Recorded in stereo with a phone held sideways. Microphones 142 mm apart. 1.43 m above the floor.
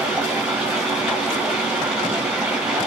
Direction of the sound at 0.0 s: 5° right (ahead or behind).